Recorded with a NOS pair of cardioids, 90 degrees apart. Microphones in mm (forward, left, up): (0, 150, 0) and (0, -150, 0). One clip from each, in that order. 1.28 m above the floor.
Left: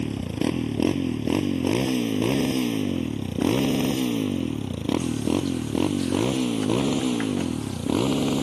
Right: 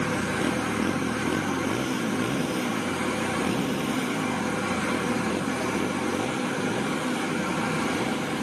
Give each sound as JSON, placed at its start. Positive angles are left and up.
{"t": 0.0, "sound": "a motorcycle", "azimuth_deg": 40}